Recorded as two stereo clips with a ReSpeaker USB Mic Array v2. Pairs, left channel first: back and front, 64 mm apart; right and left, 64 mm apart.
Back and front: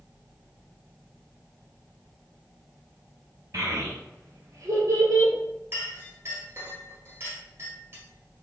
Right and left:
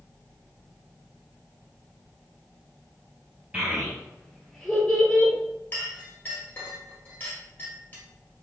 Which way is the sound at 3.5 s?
20° left.